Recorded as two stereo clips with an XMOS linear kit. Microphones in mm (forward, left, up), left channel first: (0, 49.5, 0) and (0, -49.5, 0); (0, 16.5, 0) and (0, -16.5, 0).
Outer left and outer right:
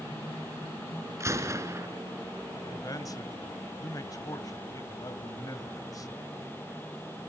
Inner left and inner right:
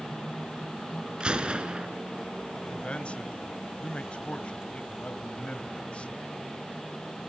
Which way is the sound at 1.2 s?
30° right (ahead or behind).